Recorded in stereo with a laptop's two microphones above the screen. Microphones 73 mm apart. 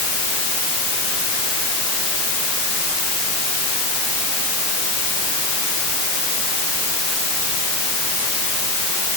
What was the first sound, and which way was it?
Only background noise.